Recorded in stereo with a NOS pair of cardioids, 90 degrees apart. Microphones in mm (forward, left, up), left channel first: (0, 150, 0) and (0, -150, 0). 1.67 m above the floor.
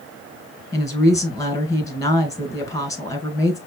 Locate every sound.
0.7 s a woman speaking: 10° left, 1.5 m